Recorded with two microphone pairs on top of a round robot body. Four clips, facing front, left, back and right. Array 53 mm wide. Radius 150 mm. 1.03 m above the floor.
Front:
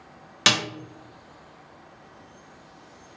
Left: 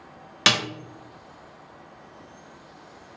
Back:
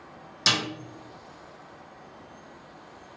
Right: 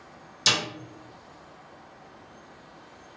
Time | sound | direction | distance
0.5 | a snare drum | 55° left | 0.5 m